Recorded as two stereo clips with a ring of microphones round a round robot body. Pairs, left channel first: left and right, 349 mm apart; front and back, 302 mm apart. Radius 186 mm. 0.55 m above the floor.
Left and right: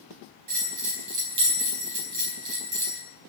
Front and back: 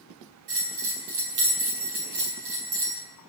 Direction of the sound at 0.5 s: 130° right.